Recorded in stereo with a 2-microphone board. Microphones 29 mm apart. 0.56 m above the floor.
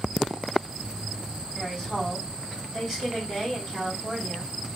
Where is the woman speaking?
10° right (ahead or behind), 2.5 m.